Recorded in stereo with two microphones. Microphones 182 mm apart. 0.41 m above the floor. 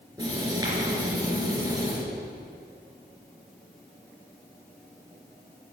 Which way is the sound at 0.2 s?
20° right (ahead or behind).